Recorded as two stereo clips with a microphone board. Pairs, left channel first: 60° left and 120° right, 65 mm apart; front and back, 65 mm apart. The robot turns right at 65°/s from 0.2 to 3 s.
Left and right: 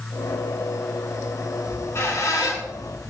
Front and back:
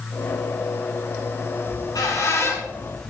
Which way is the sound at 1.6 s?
10° right.